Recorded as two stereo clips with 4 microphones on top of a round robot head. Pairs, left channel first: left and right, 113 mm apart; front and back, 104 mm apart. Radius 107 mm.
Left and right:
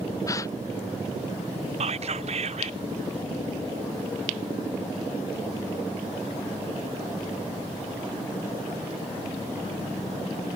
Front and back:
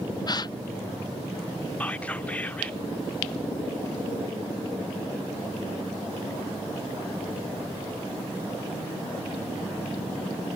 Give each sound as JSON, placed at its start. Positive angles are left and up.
{"t": 0.3, "sound": "a gasp", "azimuth_deg": 35}
{"t": 1.8, "sound": "whispering", "azimuth_deg": -80}